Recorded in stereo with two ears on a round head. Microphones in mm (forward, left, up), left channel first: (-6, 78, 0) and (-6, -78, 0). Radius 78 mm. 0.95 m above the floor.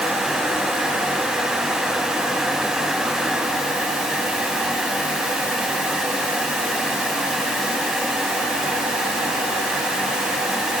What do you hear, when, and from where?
Only background noise.